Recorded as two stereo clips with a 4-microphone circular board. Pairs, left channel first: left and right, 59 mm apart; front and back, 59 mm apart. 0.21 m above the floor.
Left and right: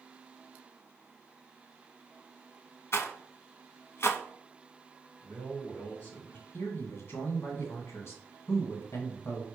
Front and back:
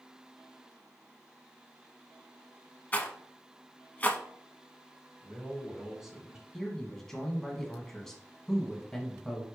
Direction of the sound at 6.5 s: 80° left.